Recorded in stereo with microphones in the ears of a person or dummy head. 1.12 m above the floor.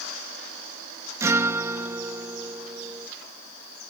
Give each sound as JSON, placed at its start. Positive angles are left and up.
{"t": 1.2, "sound": "a guitar", "side_deg": -10}